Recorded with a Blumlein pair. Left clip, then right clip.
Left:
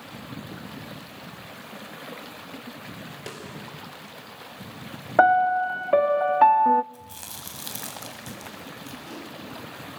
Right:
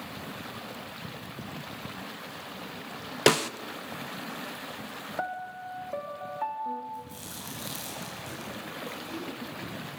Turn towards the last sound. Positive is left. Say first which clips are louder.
# even
turn(degrees=70)